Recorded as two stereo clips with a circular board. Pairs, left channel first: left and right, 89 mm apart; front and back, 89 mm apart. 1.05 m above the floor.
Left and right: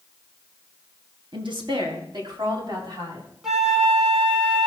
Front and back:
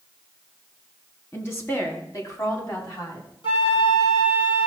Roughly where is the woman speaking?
Ahead right.